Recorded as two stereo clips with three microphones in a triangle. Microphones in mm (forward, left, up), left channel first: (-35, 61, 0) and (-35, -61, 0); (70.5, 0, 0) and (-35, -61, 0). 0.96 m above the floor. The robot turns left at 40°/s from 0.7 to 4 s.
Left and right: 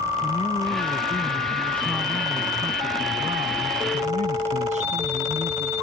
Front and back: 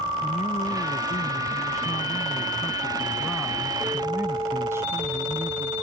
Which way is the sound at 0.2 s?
50° left.